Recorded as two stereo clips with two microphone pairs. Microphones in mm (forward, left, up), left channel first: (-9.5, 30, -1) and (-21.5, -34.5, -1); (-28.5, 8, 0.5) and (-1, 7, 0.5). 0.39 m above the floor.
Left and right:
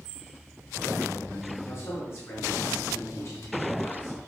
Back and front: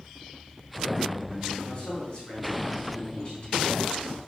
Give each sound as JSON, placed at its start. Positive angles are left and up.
{"t": 1.6, "sound": "a man speaking", "azimuth_deg": 125, "distance_m": 4.0}